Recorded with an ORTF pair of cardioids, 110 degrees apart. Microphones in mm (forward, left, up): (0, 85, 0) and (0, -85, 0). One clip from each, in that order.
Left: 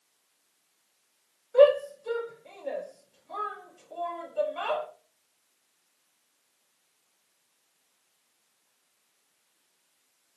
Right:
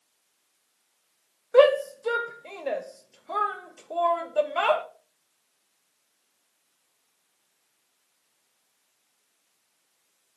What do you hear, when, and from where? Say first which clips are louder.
1.5 s a shout: right 1 dB; 65° right, 0.6 m